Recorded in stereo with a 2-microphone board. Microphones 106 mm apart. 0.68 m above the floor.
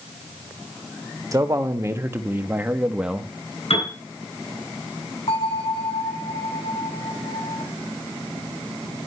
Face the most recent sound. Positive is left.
turn(degrees=80)